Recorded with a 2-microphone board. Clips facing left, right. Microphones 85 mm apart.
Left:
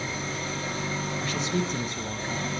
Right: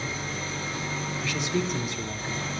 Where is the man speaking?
40° left (ahead or behind), 1.4 m.